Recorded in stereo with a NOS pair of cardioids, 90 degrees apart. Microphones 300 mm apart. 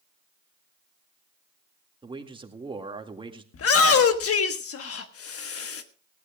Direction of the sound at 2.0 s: 20° right.